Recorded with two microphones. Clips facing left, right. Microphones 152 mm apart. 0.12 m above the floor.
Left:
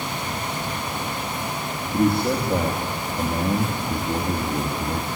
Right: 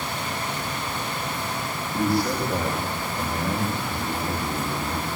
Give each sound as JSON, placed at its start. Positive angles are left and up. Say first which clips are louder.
{"t": 1.9, "sound": "a man speaking", "louder": "left 3 dB", "side_deg": 25, "distance_m": 3.0}